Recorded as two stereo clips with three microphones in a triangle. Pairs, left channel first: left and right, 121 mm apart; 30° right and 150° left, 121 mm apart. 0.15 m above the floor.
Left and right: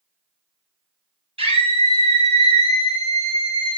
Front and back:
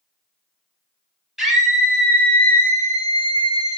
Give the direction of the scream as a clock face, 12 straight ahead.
4 o'clock.